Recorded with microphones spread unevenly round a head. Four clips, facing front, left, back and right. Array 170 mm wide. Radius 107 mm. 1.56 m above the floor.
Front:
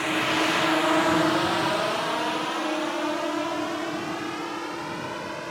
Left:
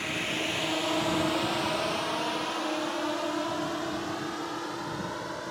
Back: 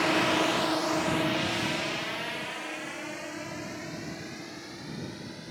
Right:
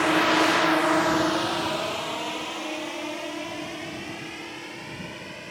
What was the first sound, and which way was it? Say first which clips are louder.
A drone: right 13 dB, front 1 dB; 85° right.